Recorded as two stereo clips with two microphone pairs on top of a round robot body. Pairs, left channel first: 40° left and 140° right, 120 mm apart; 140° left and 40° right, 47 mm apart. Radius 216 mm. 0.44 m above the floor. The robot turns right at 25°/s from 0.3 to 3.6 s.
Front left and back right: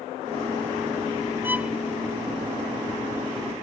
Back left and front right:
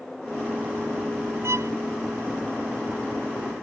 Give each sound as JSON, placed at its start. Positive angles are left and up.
{"t": 1.4, "sound": "a violin", "azimuth_deg": -65}